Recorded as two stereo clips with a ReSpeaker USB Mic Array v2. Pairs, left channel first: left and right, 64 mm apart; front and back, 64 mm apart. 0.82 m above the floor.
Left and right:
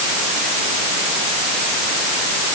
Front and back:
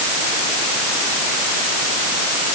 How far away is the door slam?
No door slam in this recording.